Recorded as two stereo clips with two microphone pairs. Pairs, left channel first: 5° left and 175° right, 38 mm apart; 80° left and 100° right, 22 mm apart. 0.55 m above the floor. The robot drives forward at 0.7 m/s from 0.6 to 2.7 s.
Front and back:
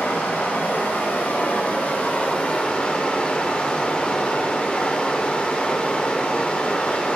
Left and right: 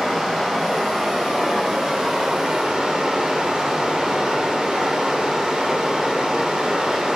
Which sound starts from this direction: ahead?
Running water, at 0.0 s.